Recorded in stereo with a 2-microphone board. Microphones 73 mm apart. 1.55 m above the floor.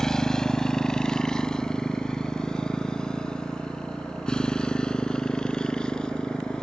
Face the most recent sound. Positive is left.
turn(degrees=10)  # may be behind; listen again after turning